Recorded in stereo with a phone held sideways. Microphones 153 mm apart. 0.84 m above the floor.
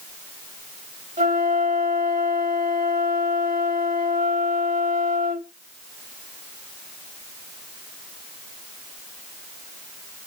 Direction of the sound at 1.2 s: 55° right (ahead or behind).